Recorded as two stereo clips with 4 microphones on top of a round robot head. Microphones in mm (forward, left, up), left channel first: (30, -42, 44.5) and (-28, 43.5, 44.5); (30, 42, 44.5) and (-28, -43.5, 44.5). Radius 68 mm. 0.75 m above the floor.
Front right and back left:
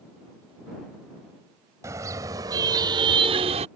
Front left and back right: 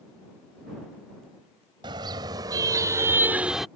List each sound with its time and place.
1.8 s a car horn: 170° right; by 3.7 s 145° left